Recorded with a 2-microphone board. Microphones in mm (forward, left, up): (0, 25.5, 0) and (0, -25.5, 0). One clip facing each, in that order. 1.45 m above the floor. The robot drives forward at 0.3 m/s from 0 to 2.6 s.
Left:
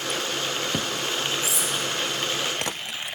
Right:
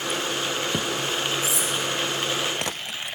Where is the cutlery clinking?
60° right (ahead or behind), 1.2 m.